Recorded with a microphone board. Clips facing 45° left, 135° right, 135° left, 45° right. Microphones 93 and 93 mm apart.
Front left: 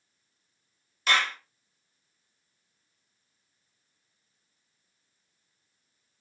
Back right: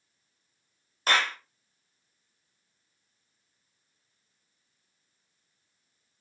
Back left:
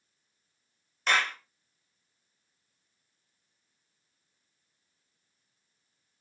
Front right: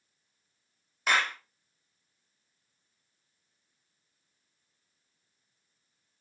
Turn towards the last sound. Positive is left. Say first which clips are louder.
# even, even
turn(degrees=-125)